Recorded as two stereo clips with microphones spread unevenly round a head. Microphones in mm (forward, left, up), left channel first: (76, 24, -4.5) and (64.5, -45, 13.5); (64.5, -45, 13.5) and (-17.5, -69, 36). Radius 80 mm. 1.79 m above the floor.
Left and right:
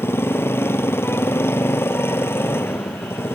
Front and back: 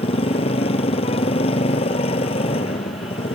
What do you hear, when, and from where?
0.0 s a motorcycle: 25° left